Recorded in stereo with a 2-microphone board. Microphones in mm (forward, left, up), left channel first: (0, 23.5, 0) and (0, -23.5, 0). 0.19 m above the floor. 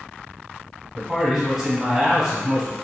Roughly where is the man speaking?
Centre.